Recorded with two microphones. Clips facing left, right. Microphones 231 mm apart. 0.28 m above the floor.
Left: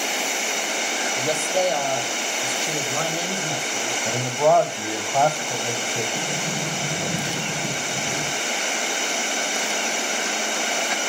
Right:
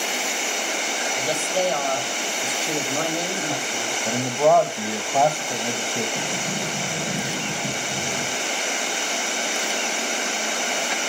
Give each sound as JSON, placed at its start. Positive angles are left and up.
{"t": 1.2, "sound": "a woman speaking", "side_deg": 25, "distance_m": 1.3}
{"t": 4.0, "sound": "a man speaking", "side_deg": -10, "distance_m": 1.1}
{"t": 6.2, "sound": "a sliding door", "side_deg": 10, "distance_m": 5.0}